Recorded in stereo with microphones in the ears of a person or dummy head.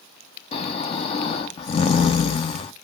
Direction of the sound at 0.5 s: 35° left (ahead or behind).